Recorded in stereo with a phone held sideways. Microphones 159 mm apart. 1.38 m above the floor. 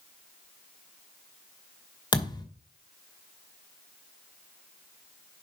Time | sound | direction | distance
2.1 | a thud | 25° left (ahead or behind) | 2 m